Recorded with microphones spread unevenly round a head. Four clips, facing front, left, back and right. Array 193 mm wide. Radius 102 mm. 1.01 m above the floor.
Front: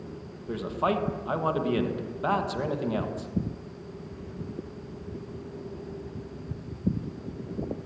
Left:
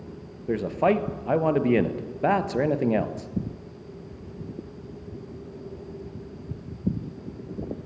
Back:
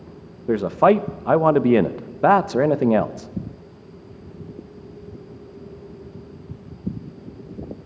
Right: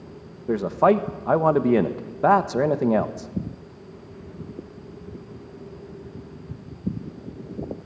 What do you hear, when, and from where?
0.5 s a man speaking: 150° right, 1.1 m